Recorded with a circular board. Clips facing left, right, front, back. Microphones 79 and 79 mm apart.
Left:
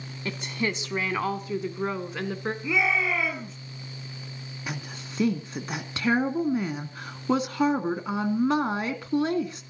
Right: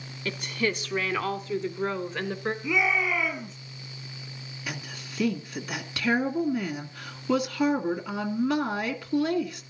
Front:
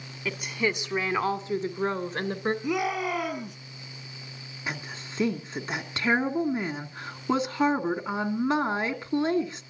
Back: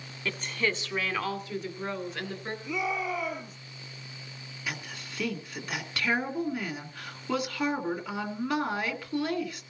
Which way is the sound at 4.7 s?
45° left.